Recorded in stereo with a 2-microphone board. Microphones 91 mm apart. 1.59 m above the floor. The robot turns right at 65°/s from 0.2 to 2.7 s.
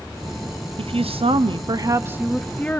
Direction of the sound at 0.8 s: 110° right.